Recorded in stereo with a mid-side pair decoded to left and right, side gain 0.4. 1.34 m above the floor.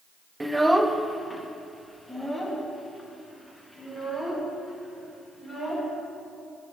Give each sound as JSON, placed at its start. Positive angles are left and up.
{"t": 0.4, "sound": "a child speaking", "azimuth_deg": -20, "distance_m": 0.5}